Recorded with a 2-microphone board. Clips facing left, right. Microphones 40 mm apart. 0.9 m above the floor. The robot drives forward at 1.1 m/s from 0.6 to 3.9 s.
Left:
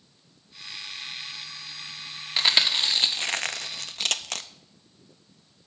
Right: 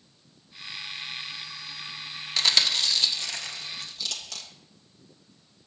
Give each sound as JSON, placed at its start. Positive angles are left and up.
{"t": 2.4, "sound": "chewing", "side_deg": 20, "distance_m": 1.5}